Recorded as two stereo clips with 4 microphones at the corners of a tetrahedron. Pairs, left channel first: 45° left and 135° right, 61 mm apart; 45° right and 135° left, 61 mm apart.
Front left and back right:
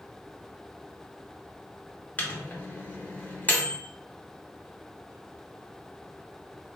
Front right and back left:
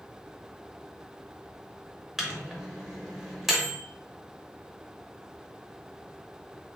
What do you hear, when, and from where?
2.2 s a microwave: 55° left, 0.7 m